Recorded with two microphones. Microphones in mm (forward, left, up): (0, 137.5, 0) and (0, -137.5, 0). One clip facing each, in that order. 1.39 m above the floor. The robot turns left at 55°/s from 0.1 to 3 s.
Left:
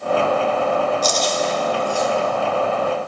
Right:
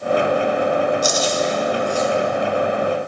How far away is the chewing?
About 0.8 m.